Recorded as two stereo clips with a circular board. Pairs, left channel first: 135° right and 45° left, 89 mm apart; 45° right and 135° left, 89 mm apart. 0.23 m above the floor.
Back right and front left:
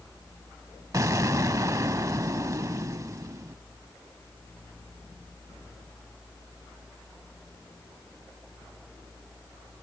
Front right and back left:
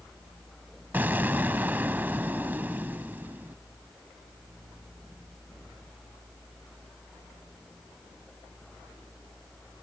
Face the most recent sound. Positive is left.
turn(degrees=75)